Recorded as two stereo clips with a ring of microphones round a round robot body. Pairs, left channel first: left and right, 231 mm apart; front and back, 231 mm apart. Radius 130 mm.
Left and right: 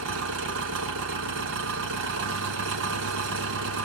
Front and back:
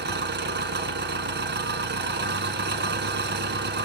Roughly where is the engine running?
Behind right.